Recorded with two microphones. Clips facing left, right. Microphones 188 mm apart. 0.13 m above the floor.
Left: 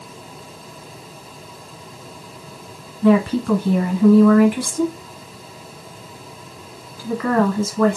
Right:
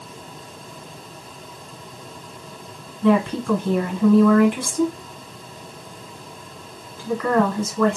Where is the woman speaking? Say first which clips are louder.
Left 3 dB; 5° left (ahead or behind), 1.6 m.